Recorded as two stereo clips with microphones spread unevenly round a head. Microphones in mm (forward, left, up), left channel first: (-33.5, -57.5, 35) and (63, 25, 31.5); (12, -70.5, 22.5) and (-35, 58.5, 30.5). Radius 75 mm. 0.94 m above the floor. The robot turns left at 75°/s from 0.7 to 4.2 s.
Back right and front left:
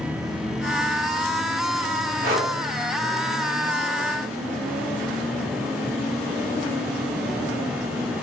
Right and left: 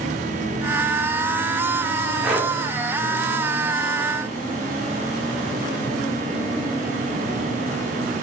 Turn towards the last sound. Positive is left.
turn(degrees=-115)